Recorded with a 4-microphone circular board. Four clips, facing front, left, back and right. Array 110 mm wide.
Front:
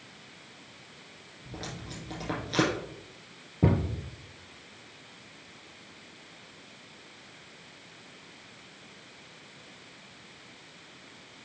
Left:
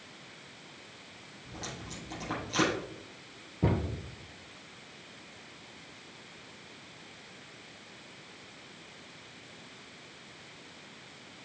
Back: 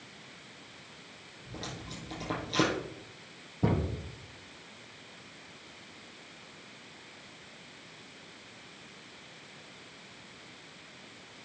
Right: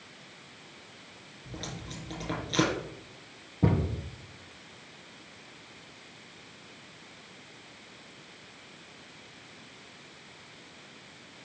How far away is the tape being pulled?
About 5 m.